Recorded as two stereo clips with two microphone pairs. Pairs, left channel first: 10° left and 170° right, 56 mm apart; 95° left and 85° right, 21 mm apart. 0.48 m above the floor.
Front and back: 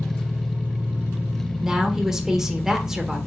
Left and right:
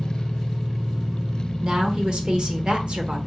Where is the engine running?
110° right, 1.6 m.